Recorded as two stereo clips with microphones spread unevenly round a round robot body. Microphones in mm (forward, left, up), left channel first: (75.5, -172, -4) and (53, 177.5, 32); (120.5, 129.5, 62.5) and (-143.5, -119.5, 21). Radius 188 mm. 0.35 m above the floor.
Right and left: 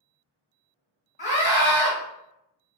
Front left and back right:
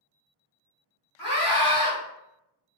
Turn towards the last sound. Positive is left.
turn(degrees=-40)